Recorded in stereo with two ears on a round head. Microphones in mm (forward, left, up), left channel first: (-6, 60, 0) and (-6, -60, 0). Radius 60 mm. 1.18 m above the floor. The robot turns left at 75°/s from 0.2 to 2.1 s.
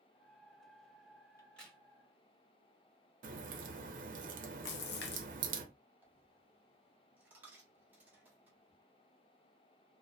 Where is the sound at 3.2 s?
60° right (ahead or behind), 0.6 m.